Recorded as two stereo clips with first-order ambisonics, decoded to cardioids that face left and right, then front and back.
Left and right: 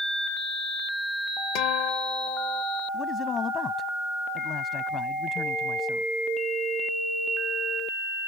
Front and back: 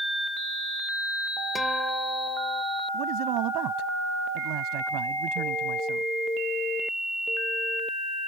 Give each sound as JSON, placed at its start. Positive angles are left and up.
{"t": 1.6, "sound": "a guitar", "azimuth_deg": 85}
{"t": 2.9, "sound": "a man speaking", "azimuth_deg": 155}